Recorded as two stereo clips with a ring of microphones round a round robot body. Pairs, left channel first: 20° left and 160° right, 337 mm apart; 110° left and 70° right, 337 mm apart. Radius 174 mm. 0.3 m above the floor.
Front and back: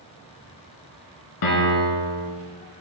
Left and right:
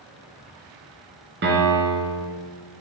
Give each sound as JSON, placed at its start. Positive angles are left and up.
{"t": 1.4, "sound": "a piano", "azimuth_deg": -5, "distance_m": 1.2}